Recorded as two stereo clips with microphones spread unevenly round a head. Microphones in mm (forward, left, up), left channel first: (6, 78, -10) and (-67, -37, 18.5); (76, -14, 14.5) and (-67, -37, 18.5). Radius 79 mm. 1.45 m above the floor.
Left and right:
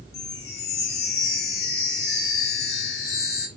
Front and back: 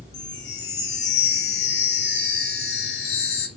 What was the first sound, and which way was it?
A chime, 35° left.